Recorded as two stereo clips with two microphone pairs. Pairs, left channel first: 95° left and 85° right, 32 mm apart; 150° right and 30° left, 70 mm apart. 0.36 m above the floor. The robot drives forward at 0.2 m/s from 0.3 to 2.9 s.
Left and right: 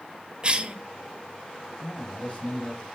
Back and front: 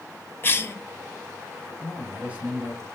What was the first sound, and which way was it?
A cough, 120° right.